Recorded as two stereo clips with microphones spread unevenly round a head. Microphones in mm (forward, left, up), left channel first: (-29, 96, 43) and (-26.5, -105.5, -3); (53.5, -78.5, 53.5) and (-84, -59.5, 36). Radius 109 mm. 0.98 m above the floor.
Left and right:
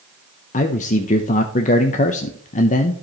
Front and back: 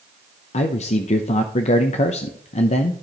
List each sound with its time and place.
0.5 s a man speaking: 30° left, 0.5 m